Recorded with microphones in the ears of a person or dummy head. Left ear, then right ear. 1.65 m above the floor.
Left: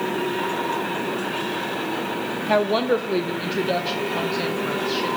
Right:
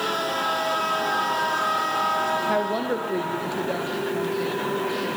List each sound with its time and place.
2.5 s a woman speaking: 30° left (ahead or behind), 1.1 m; by 5.1 s 35° left (ahead or behind), 3 m